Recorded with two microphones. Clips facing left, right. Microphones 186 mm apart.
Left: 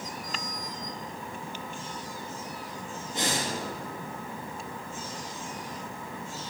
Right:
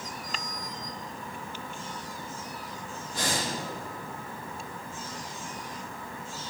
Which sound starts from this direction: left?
Breathing, at 3.1 s.